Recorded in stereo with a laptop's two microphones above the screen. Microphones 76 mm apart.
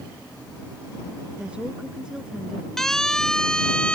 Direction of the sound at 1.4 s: 15° right (ahead or behind).